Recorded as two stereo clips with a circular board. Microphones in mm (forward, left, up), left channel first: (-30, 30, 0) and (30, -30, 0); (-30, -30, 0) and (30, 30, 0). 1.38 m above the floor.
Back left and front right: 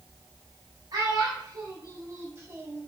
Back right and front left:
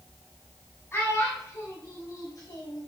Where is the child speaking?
75° right, 1.6 m; by 2.9 s 110° right, 1.0 m.